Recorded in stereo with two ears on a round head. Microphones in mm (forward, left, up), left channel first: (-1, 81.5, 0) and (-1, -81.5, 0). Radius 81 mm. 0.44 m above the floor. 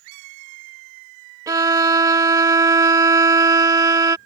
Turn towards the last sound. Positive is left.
turn(degrees=-20)  # may be behind; listen again after turning